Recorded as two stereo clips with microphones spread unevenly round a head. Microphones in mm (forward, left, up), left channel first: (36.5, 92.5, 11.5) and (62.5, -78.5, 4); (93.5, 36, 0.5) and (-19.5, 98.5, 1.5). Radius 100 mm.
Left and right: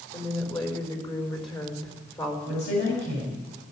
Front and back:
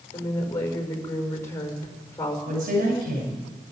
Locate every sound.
0.1 s a woman speaking: 40° left, 5 m
2.5 s a woman speaking: 145° left, 6.5 m